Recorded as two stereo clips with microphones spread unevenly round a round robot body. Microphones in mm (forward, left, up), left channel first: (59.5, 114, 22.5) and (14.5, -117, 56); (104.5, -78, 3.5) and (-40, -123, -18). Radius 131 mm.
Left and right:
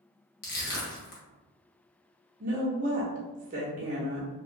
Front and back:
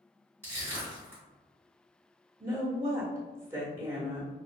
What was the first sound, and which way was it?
Crushing, 120° left.